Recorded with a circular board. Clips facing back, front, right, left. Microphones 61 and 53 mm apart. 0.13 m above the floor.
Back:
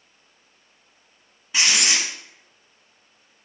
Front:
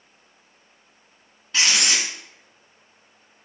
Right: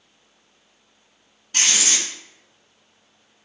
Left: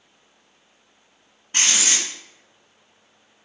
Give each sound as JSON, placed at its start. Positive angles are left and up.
{"t": 1.5, "sound": "writing", "azimuth_deg": 110, "distance_m": 1.0}